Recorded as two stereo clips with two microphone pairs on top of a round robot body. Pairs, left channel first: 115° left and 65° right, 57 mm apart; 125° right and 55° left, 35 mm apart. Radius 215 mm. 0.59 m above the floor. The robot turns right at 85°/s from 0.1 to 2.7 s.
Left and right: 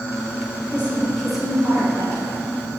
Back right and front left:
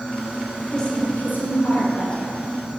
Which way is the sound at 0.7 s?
160° left.